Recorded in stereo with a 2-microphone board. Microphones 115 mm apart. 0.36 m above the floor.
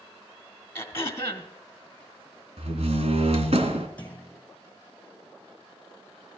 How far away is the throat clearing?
About 2.0 m.